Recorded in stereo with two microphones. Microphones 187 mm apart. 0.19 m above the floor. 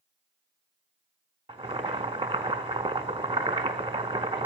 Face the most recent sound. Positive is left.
turn(degrees=-30)  # may be behind; listen again after turning